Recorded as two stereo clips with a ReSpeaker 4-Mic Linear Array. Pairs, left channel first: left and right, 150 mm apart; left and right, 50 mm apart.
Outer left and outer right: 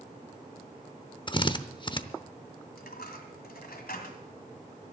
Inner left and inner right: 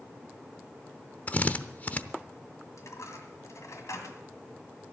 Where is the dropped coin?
80° left, 1.8 m.